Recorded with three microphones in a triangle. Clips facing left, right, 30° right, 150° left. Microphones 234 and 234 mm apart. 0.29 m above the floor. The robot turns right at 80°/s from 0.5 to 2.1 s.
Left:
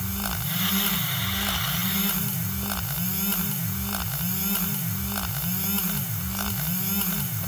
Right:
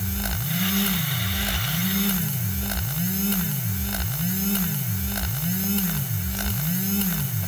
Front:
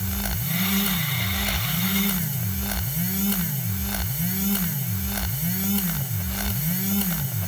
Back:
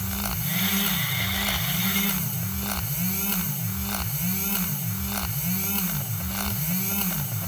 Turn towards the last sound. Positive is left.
No sound to turn to.